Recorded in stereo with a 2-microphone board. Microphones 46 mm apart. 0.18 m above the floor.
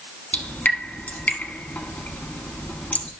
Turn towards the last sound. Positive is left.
turn(degrees=40)  # may be behind; listen again after turning